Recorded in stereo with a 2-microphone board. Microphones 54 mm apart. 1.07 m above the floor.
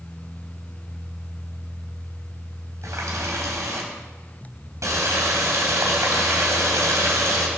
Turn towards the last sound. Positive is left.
turn(degrees=-70)  # may be behind; listen again after turning